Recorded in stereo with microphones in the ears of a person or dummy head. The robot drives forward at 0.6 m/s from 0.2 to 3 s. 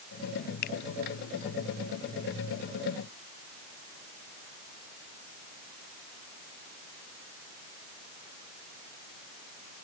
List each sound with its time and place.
0.6 s a finger snap: 55° left (ahead or behind)